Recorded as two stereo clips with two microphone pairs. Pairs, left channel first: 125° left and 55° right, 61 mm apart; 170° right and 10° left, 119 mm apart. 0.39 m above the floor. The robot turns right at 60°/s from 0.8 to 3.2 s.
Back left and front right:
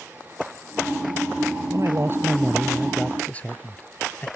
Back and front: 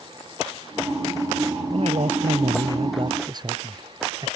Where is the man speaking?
30° right; by 4.3 s 60° left.